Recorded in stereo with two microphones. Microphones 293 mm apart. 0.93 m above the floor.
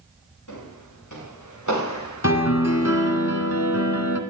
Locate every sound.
0.5 s footsteps: 80° left, 9 m; by 3.0 s 60° left (ahead or behind), 6.5 m
2.2 s a piano: 55° left (ahead or behind), 1.7 m